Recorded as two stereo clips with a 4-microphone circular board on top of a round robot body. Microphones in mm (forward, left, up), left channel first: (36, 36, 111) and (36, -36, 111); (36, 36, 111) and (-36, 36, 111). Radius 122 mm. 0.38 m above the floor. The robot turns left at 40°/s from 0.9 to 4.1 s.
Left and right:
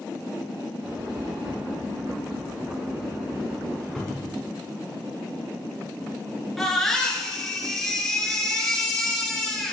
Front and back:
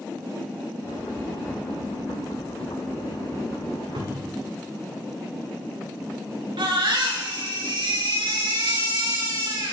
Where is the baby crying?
175° left, 4.5 m.